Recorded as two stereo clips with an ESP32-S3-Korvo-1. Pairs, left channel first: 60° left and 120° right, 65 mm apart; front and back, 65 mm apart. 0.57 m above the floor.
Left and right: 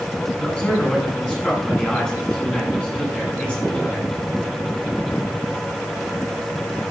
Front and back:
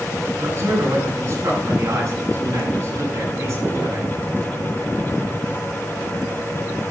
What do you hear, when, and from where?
0.4 s a man speaking: 135° left, 6.5 m